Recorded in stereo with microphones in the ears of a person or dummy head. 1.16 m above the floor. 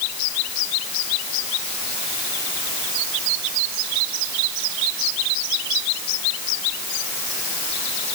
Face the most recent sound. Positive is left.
No sound to turn to.